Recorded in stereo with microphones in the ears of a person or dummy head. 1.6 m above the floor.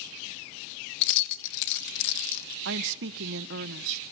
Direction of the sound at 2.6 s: 60° right (ahead or behind).